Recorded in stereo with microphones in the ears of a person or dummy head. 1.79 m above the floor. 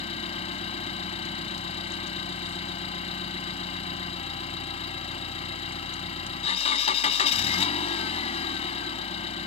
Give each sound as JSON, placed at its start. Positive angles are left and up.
{"t": 0.0, "sound": "an engine running", "side_deg": 40}